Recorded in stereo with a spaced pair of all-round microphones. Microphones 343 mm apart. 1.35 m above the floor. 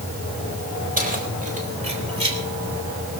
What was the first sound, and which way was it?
Keys jangling, 25° right (ahead or behind).